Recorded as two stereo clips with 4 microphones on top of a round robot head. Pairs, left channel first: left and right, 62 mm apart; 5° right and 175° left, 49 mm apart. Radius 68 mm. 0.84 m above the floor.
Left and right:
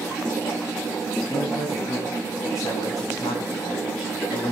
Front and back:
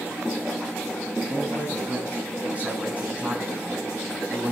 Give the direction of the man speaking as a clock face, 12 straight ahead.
8 o'clock.